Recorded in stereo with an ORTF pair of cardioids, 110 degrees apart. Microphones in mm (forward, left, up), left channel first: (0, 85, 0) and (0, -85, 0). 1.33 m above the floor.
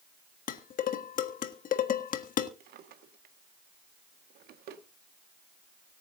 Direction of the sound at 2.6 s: 65° right.